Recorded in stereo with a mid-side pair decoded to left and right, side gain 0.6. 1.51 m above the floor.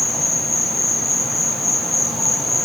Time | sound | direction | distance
0.0 | an insect | 10° left | 0.8 m